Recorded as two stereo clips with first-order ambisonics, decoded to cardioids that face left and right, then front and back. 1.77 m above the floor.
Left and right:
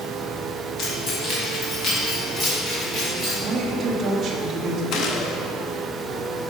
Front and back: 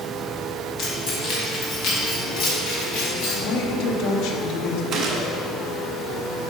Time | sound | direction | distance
0.8 | keys jangling | 45° left | 1.4 m
3.4 | a woman speaking | 30° right | 0.8 m
4.9 | a gunshot | 130° left | 0.7 m